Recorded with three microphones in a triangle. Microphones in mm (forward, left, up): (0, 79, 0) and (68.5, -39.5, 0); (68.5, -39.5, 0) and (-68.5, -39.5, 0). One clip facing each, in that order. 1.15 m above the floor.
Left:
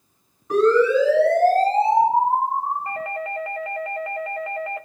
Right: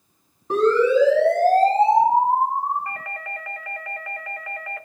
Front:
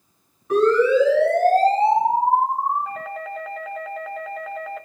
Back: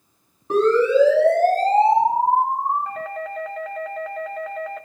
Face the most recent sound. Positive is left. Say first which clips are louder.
# left 6 dB, back 2 dB
turn(degrees=85)